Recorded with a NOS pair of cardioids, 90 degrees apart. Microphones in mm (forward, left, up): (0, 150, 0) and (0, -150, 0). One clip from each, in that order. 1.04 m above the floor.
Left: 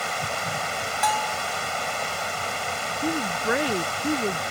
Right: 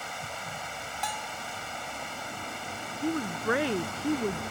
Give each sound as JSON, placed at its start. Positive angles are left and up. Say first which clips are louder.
{"t": 0.0, "sound": "running water", "louder": "left 9 dB", "azimuth_deg": 65}
{"t": 1.0, "sound": "a bell", "louder": "left 11 dB", "azimuth_deg": 45}
{"t": 3.0, "sound": "a woman speaking", "louder": "left 3 dB", "azimuth_deg": 15}